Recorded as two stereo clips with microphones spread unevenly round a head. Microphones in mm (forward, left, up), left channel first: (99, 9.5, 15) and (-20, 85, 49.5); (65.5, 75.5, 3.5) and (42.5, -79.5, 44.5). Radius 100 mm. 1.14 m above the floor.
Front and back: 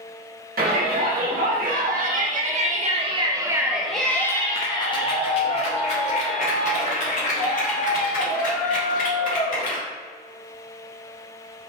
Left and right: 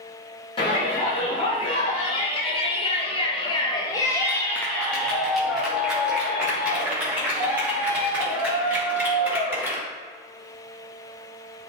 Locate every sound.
0.6 s a shout: 135° left, 2.0 m; by 9.8 s 20° right, 4 m